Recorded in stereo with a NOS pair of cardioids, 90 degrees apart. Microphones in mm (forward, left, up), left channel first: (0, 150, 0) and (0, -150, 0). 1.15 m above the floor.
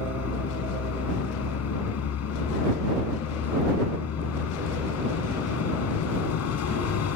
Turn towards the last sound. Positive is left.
turn(degrees=60)